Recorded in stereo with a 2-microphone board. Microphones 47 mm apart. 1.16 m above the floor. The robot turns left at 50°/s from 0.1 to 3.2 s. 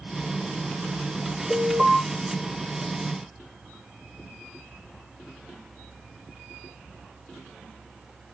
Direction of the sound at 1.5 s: 25° right (ahead or behind).